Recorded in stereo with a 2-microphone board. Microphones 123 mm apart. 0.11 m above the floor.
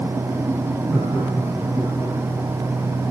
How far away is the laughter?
About 6.5 m.